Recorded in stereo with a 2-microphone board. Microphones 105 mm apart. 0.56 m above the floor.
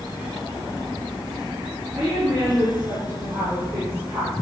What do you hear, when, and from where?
1.9 s a woman speaking: 10° right (ahead or behind), 10 m; by 4.3 s 20° right (ahead or behind), 12 m